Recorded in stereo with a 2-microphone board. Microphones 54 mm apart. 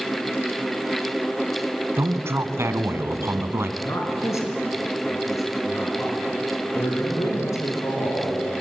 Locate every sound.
2.0 s a man speaking: 55° right (ahead or behind), 1.8 m
3.8 s a man speaking: 70° left (ahead or behind), 3.5 m
6.7 s a man speaking: 65° left (ahead or behind), 7.5 m